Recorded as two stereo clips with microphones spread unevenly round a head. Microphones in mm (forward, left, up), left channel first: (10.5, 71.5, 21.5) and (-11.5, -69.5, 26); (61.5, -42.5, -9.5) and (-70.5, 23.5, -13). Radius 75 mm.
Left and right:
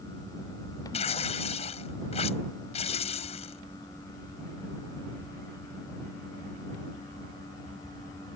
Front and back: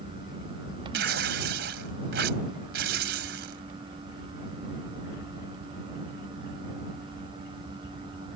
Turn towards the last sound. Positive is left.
turn(degrees=130)